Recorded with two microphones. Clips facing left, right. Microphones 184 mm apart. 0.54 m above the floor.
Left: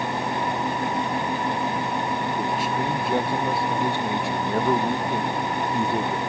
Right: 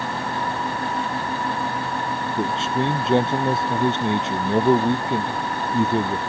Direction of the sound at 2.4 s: 25° right (ahead or behind).